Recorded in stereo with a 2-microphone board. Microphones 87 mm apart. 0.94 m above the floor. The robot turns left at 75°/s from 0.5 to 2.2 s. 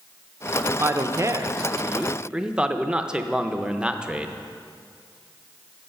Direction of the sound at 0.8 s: 60° right.